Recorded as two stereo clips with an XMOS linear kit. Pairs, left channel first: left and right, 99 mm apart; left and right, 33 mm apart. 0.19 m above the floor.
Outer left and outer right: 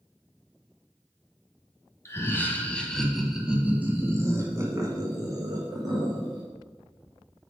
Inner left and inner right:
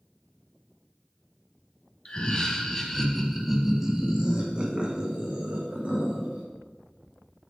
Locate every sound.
2.0 s laughter: 30° left (ahead or behind), 1.2 m; by 6.4 s 45° right (ahead or behind), 2.5 m